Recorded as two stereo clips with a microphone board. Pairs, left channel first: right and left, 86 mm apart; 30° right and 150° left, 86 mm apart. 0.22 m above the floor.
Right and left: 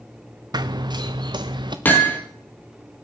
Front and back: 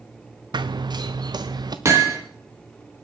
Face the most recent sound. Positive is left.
turn(degrees=-155)